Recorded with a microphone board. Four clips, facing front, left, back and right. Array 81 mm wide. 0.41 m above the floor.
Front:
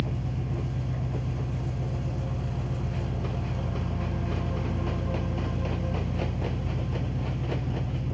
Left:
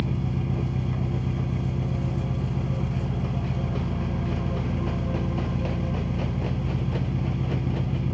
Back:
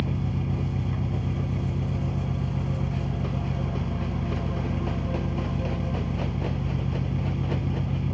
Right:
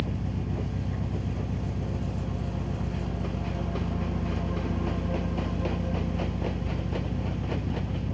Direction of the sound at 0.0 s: 130° left.